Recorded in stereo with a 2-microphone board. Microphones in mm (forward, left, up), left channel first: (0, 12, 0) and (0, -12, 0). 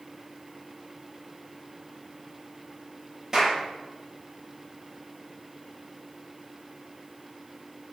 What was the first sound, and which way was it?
A clap, 25° right (ahead or behind).